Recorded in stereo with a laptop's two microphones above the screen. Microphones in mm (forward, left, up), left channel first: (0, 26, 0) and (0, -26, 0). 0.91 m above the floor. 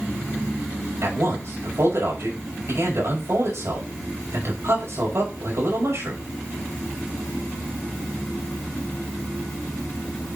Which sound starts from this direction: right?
A man speaking, at 1.0 s.